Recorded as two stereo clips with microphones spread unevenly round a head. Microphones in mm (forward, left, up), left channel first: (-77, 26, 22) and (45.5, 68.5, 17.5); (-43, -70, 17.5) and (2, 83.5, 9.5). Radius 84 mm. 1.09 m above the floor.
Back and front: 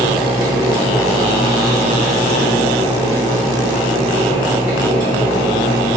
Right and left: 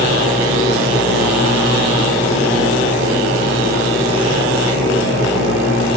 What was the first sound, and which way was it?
A fan, 95° right.